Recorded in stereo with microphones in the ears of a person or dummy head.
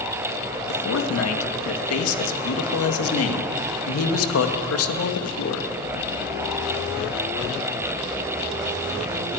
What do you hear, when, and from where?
0.7 s a man speaking: 85° left, 2.0 m